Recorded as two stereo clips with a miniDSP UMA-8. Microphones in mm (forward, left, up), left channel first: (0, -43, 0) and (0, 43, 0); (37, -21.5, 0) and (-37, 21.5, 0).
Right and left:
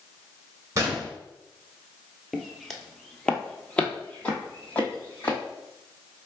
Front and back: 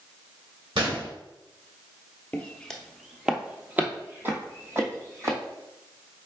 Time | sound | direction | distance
0.8 | a gunshot | 145° left | 1.3 m
2.3 | footsteps | straight ahead | 0.7 m